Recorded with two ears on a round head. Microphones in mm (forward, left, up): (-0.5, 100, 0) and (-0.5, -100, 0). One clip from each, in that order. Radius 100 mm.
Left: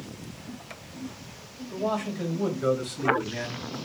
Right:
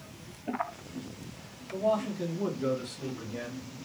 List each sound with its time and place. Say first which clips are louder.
1.7 s a man speaking: right 1 dB; 80° left, 2.5 m; by 3.7 s 75° left (ahead or behind), 1.9 m